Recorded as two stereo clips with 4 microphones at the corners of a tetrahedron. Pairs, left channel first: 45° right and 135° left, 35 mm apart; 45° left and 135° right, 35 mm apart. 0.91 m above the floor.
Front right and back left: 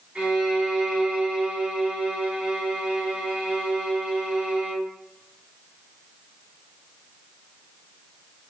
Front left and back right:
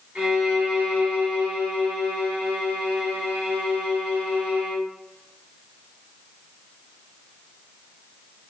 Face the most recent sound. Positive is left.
turn(degrees=-170)